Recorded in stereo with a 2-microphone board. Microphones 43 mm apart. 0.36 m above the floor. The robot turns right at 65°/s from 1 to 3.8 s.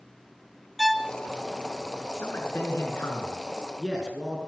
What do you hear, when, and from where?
0.8 s a violin: centre (ahead or behind), 0.8 m; by 1.1 s 10° left (ahead or behind), 0.8 m
2.1 s a man speaking: 70° left, 5 m; by 4.4 s straight behind, 5 m